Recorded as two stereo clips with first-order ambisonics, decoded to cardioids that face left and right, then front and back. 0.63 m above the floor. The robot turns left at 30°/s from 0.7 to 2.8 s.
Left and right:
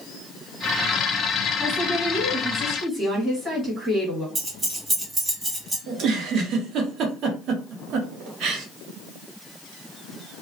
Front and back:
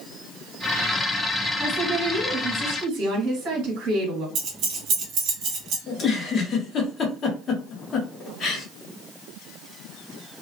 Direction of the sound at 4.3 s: 165° right.